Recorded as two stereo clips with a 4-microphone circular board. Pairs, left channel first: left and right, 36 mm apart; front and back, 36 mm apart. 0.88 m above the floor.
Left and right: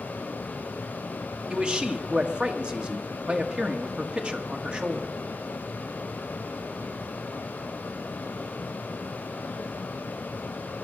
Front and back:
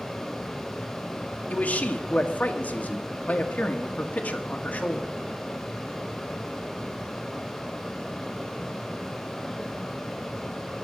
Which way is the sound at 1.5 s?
35° right.